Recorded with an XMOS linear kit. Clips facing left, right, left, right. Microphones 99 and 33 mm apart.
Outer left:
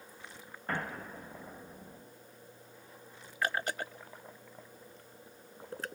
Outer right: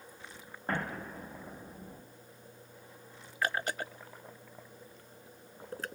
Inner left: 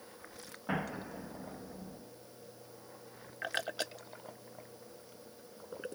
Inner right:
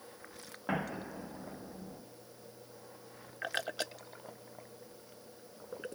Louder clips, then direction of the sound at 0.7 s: Outer right 2 dB, inner right 1 dB; 25° right (ahead or behind).